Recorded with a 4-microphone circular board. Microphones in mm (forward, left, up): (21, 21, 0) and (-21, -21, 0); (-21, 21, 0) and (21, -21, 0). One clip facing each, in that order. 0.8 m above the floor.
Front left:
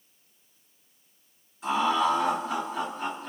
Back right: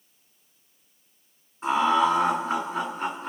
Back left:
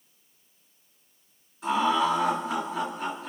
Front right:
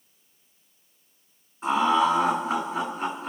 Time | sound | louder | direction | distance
1.6 | laughter | back right 3 dB, front right 3 dB | 95° right | 2.0 m